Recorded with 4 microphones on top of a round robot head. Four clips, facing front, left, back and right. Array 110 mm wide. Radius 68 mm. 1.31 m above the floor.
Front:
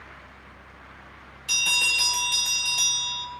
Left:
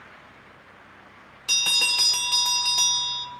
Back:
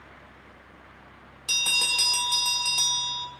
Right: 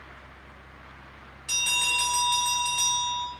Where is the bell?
110° left, 1.3 m.